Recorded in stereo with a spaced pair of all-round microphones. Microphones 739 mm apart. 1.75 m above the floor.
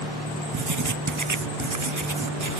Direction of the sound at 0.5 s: 30° right (ahead or behind).